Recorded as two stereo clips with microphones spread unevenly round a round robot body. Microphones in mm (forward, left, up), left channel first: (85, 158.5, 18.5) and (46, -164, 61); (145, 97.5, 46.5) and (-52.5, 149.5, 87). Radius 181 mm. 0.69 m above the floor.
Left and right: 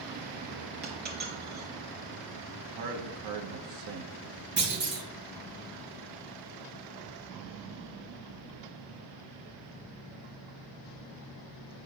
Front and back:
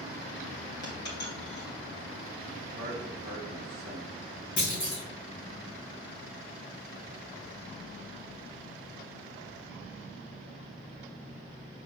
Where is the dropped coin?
40° right, 2.5 m.